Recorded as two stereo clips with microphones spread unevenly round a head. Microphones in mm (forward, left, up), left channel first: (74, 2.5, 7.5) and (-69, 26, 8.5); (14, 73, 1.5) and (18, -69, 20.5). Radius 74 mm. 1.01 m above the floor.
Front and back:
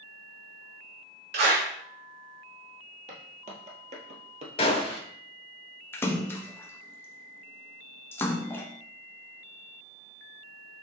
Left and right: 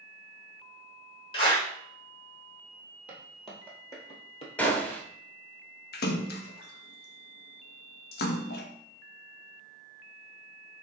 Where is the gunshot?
5° left, 0.8 m.